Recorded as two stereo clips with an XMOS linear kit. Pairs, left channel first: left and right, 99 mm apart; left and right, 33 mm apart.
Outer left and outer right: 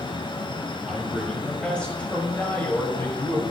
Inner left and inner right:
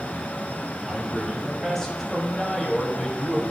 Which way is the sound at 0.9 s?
5° left (ahead or behind).